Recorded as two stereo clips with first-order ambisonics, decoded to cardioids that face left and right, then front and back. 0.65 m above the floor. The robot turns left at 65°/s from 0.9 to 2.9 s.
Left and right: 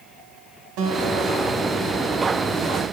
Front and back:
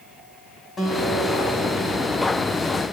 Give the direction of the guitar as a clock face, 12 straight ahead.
2 o'clock.